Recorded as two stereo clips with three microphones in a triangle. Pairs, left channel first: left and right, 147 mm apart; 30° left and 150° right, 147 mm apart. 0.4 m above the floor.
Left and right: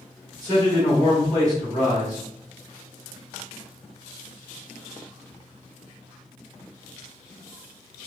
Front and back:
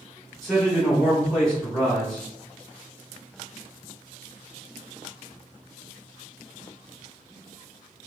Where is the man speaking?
55° right, 1.6 m.